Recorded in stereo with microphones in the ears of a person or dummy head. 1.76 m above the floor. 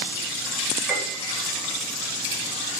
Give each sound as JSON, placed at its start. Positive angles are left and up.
{"t": 0.9, "sound": "a piano", "side_deg": -10, "distance_m": 1.1}